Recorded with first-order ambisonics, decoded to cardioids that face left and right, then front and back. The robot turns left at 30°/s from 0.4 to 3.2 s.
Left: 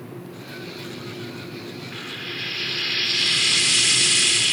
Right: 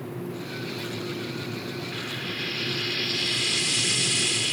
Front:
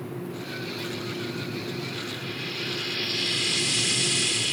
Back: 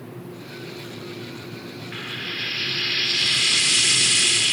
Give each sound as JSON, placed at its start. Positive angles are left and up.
{"t": 1.9, "sound": "frying", "azimuth_deg": 175, "distance_m": 0.9}